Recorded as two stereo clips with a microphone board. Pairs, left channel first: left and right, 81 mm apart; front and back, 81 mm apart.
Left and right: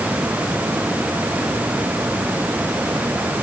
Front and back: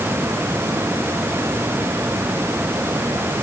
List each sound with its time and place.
Only background noise.